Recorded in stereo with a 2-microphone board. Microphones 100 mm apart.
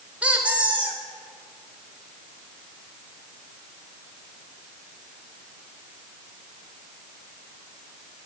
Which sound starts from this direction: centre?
A squeak, at 0.2 s.